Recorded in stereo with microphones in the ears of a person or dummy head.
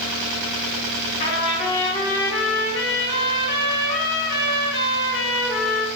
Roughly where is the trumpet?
Left.